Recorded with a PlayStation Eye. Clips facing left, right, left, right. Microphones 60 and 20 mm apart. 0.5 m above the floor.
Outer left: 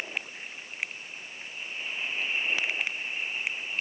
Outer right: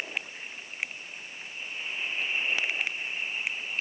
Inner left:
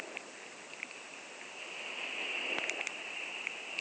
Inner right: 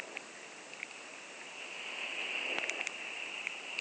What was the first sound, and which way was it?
Only background noise.